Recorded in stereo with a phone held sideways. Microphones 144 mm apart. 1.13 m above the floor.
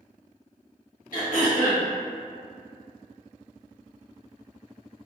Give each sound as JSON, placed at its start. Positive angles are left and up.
{"t": 1.1, "sound": "throat clearing", "side_deg": 70, "distance_m": 1.3}